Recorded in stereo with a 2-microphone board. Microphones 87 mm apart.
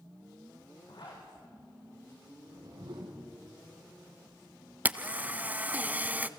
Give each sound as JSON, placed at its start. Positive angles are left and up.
{"t": 0.9, "sound": "a zipper", "side_deg": 60, "distance_m": 6.5}
{"t": 2.4, "sound": "a whoosh", "side_deg": -80, "distance_m": 5.0}
{"t": 4.8, "sound": "a camera shutter", "side_deg": -20, "distance_m": 0.6}